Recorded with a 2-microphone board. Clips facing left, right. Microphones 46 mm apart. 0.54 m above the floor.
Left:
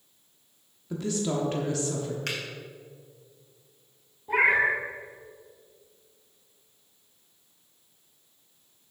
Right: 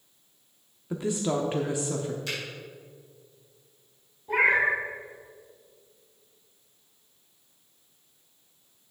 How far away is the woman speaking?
About 0.8 m.